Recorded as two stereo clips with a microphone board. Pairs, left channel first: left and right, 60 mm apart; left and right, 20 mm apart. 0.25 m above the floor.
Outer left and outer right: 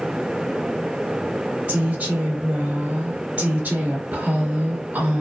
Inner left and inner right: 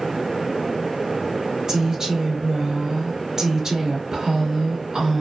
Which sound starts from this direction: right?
A woman speaking, at 1.7 s.